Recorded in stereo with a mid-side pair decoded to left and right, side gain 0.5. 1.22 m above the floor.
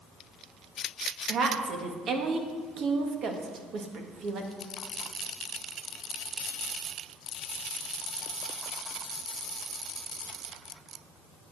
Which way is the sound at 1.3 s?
55° right.